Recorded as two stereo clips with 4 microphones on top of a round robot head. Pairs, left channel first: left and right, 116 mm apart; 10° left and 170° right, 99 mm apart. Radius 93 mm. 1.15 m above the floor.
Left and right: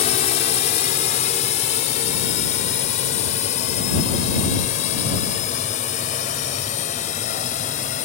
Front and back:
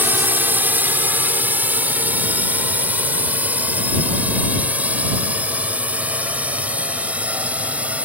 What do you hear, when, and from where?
0.0 s a drone: 120° left; by 8.1 s 115° left